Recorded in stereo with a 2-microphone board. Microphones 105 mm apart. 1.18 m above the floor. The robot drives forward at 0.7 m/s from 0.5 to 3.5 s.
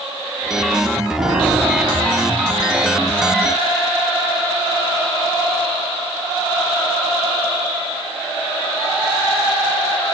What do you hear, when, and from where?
1.2 s a piano: 10° left (ahead or behind), 9.5 m